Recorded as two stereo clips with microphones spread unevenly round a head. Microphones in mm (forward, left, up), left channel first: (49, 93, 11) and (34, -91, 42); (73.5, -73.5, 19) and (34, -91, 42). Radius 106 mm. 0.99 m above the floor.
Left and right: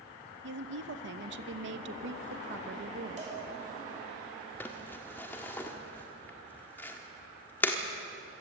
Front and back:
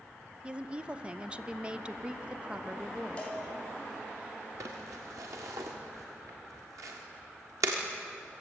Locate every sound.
0.4 s a woman speaking: 80° right, 1.2 m
3.2 s a cowbell: 40° right, 6 m
4.6 s crumpling: 170° left, 1.3 m